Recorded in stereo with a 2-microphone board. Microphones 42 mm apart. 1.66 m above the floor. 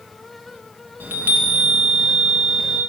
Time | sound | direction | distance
1.0 | a chime | 55° right (ahead or behind) | 2 m